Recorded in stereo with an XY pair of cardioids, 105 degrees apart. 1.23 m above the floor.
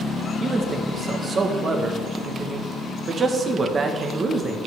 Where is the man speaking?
40° right, 1.3 m.